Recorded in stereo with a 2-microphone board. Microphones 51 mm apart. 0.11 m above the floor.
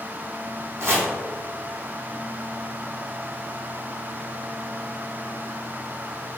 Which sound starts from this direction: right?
Chopping, at 0.8 s.